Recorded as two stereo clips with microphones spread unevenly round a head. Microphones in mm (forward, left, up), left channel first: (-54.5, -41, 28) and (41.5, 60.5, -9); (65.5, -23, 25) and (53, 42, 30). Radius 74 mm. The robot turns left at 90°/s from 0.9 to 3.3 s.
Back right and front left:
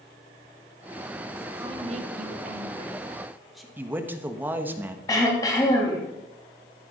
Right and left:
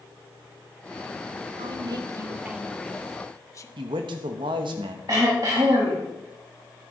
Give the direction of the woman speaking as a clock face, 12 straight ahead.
8 o'clock.